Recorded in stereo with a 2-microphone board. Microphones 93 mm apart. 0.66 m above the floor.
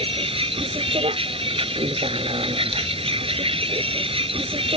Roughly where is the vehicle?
Right.